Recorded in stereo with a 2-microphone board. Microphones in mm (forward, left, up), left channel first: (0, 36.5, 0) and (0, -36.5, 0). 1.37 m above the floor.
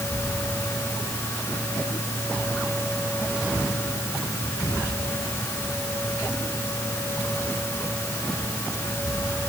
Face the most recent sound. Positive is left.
No sound to turn to.